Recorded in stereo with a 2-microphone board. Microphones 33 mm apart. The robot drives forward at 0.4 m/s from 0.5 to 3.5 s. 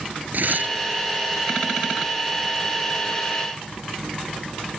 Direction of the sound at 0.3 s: 65° right (ahead or behind).